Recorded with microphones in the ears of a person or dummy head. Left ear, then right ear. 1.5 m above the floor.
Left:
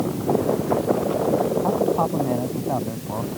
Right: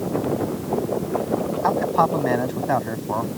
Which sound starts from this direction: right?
A man speaking, at 1.6 s.